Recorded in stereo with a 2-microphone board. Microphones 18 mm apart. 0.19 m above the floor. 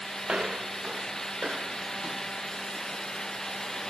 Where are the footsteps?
60° right (ahead or behind); by 3.0 s 50° right (ahead or behind).